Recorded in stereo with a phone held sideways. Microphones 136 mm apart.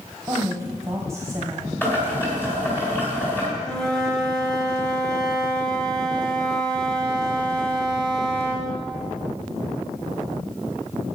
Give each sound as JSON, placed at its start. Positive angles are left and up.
{"t": 0.3, "sound": "a woman speaking", "side_deg": -20, "distance_m": 1.4}
{"t": 1.8, "sound": "boiling", "side_deg": 15, "distance_m": 3.5}
{"t": 3.6, "sound": "a flute", "side_deg": 5, "distance_m": 1.8}